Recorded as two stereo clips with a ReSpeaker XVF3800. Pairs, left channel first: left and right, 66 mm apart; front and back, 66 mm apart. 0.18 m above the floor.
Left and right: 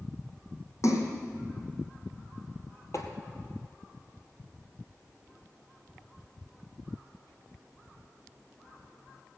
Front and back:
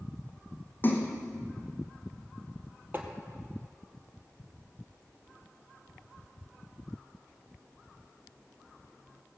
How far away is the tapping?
About 1.6 m.